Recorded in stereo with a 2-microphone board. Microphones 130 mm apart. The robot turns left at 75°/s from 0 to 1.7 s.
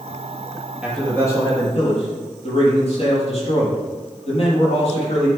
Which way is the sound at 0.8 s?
170° right.